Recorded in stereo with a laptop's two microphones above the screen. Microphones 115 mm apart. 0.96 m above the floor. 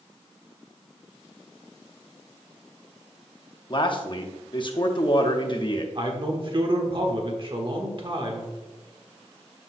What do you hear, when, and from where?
3.7 s a man speaking: 45° left (ahead or behind), 0.9 m
6.0 s a man speaking: 45° right (ahead or behind), 1.2 m